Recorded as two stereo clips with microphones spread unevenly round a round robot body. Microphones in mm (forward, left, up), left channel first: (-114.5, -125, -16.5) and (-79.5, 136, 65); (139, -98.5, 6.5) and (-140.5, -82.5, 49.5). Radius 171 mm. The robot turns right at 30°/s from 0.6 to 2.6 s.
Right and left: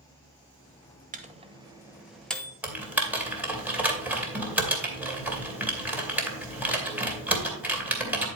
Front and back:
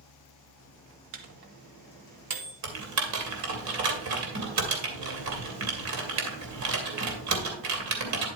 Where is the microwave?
150° left, 1.3 m; by 2.5 s 165° right, 1.3 m.